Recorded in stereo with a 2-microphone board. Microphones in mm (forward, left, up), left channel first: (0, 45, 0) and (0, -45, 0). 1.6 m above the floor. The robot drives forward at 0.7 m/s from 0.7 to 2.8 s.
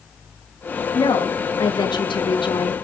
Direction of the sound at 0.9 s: 45° left (ahead or behind).